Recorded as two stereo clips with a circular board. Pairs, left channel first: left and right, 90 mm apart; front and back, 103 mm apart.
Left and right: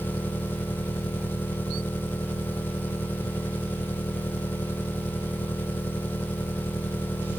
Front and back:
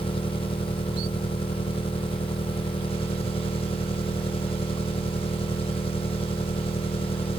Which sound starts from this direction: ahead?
An engine running, at 0.0 s.